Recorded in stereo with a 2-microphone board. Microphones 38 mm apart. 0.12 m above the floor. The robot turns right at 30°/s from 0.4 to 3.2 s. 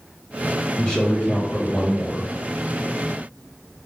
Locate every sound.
0.8 s a man speaking: 15° left (ahead or behind), 1.5 m; by 2.3 s 10° left (ahead or behind), 1.5 m